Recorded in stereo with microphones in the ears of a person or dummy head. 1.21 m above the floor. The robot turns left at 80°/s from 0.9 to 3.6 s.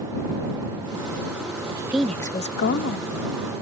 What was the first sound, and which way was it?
A woman speaking, 150° right.